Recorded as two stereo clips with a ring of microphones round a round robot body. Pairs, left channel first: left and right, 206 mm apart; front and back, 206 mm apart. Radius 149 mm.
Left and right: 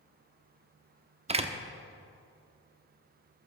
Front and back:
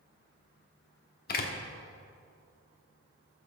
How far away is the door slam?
About 0.9 m.